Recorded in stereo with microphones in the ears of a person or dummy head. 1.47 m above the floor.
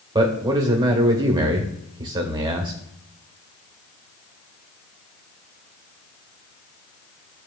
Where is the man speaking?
20° right (ahead or behind), 1.2 m.